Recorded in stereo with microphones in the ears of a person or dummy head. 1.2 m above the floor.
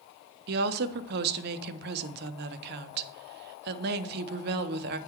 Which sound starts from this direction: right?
A woman speaking, at 0.5 s.